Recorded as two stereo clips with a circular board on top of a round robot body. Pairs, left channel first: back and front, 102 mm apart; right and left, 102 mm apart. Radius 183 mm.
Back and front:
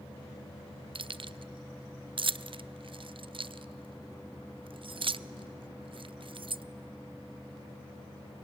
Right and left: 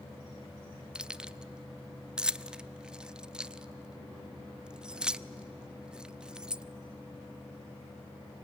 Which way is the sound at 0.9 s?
10° left.